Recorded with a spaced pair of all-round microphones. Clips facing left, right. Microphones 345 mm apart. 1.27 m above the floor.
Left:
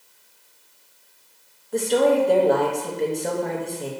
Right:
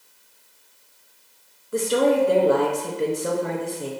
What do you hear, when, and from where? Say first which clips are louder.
1.7 s a woman speaking: left 1 dB; 10° right (ahead or behind), 0.6 m